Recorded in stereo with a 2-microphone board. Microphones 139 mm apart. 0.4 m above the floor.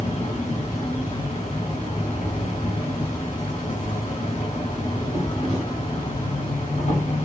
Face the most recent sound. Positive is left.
turn(degrees=70)  # may be behind; listen again after turning